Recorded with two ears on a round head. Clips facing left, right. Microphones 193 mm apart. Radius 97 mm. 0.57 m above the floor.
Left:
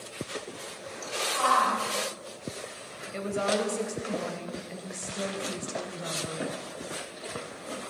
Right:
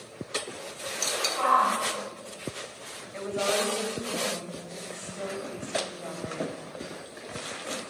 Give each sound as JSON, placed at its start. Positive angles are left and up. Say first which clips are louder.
{"t": 1.4, "sound": "a shout", "louder": "right 1 dB", "side_deg": 0, "distance_m": 5.5}
{"t": 3.1, "sound": "a woman speaking", "louder": "even", "side_deg": 40, "distance_m": 3.0}